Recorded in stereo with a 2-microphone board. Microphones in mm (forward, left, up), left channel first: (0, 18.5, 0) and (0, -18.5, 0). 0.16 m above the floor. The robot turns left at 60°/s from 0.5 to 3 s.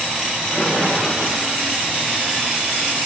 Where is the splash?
65° left, 9 m; by 1.6 s straight ahead, 9 m.